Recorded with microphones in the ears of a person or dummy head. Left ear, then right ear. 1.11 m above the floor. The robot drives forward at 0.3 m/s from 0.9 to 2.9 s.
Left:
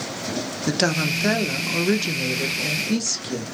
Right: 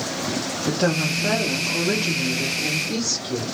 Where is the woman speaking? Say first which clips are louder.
Left 1 dB; 55° left (ahead or behind), 0.7 m; by 3.4 s 50° left (ahead or behind), 0.8 m.